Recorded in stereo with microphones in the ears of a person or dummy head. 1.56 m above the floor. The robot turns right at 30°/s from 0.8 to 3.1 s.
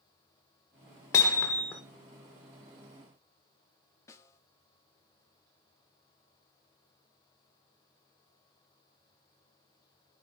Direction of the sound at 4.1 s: 15° left (ahead or behind).